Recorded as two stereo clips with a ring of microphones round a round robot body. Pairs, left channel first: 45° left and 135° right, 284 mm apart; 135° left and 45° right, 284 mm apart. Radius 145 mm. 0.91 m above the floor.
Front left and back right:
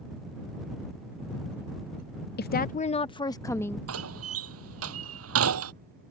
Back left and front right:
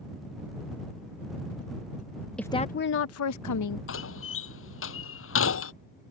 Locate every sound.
2.4 s a woman speaking: 50° left; by 3.8 s 130° left
3.9 s a door slam: 175° right